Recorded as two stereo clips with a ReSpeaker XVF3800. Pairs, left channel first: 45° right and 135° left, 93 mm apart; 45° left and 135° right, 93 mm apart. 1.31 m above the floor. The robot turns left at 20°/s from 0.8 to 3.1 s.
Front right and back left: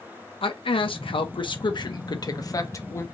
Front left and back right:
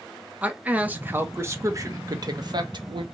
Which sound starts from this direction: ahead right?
A man speaking, at 0.4 s.